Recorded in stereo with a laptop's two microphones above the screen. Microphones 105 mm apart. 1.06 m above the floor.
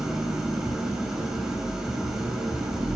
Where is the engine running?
5° right (ahead or behind), 7 m.